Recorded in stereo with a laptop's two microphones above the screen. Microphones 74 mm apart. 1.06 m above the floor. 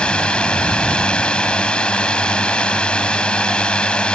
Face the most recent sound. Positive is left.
turn(degrees=10)  # may be behind; listen again after turning